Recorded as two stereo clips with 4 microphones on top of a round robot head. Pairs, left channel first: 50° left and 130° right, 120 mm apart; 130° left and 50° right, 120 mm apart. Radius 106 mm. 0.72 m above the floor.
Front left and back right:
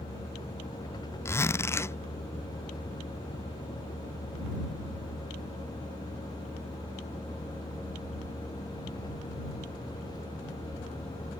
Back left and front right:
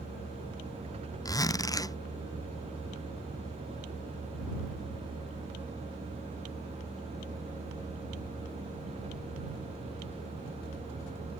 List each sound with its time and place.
0.0 s a vehicle: 10° right
1.2 s a zipper: 100° left